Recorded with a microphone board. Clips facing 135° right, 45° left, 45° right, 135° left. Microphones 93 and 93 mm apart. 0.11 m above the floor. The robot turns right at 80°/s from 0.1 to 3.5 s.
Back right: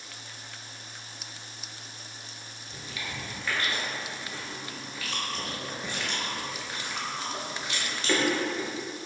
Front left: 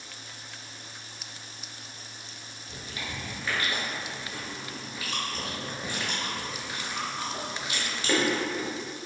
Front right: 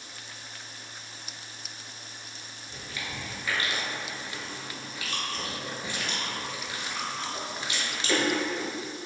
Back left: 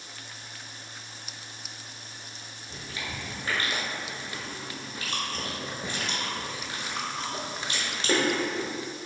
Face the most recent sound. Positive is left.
turn(degrees=115)